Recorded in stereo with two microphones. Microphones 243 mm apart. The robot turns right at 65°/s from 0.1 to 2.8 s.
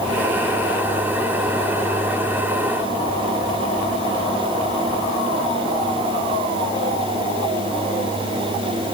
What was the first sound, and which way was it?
Only background noise.